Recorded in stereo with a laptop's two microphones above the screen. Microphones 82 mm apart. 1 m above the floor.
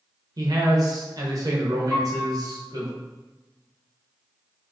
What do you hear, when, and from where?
0.4 s a man speaking: 50° right (ahead or behind), 0.7 m
1.9 s a piano: centre (ahead or behind), 0.6 m